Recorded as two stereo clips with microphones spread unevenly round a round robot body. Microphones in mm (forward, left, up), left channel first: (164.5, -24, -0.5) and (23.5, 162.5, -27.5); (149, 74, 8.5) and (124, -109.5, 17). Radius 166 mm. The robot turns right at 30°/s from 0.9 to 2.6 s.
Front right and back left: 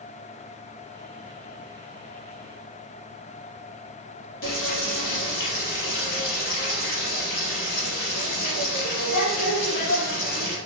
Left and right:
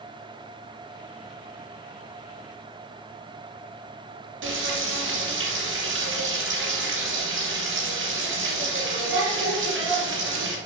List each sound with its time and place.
4.4 s frying: 110° right, 3 m